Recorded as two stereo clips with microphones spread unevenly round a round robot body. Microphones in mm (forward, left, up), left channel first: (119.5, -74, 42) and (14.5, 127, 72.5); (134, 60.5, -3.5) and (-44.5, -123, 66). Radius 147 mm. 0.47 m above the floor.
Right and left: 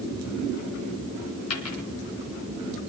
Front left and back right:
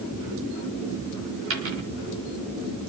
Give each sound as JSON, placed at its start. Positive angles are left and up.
{"t": 1.5, "sound": "a dropped coin", "azimuth_deg": -90, "distance_m": 3.0}